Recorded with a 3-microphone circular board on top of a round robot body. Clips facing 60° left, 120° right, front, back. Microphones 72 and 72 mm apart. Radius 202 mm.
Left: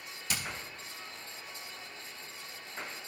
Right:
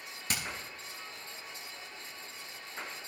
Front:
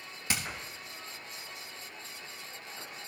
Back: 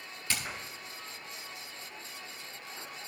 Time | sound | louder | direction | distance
0.3 | hammering | right 1 dB, front 1 dB | 70° right | 3 m